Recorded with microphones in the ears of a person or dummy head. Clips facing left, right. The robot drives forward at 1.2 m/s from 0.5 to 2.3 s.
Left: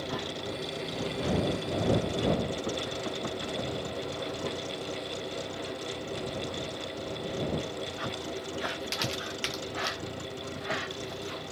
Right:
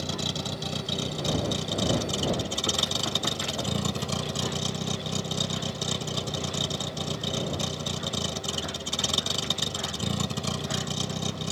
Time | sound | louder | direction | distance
0.0 | a vehicle | right 2 dB | 65° right (ahead or behind) | ?